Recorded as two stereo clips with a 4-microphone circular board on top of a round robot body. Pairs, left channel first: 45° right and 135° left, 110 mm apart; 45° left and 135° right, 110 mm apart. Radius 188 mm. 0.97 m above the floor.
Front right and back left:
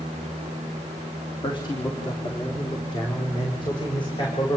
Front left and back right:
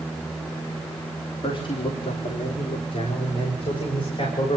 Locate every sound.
1.4 s a man speaking: straight ahead, 2.5 m; by 4.6 s 5° left, 6 m